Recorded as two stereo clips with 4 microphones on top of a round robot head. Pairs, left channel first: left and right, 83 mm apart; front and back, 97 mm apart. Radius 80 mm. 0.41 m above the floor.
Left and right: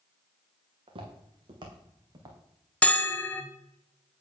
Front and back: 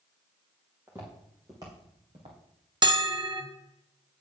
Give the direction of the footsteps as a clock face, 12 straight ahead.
4 o'clock.